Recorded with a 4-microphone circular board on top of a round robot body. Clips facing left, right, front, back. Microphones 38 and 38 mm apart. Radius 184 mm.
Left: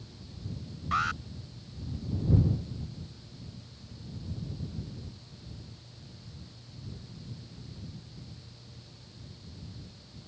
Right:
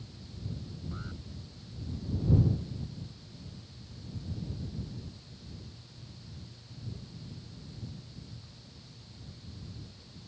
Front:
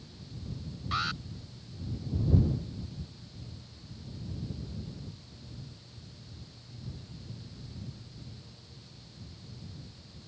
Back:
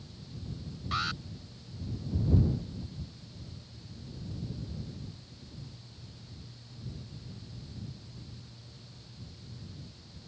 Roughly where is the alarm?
Left.